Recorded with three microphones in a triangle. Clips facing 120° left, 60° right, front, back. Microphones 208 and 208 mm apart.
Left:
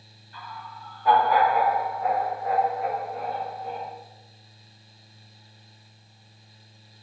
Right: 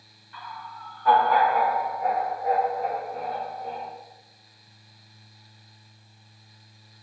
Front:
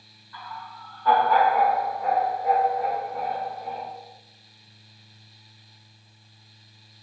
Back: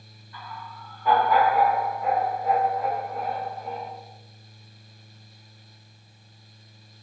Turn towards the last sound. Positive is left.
turn(degrees=-65)